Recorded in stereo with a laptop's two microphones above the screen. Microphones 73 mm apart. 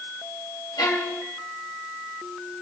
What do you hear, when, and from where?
0.8 s a violin: 65° left (ahead or behind), 1.9 m